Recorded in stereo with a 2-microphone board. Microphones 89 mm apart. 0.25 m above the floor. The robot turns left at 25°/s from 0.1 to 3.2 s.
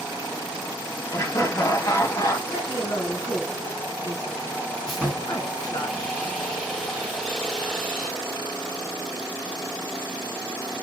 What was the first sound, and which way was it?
Laughter, 85° left.